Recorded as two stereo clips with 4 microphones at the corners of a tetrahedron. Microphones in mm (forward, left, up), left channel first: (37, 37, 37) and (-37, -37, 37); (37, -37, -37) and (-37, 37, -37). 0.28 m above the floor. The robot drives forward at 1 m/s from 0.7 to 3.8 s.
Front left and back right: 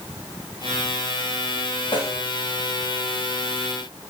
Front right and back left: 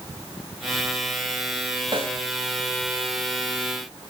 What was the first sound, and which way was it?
A snare drum, 90° left.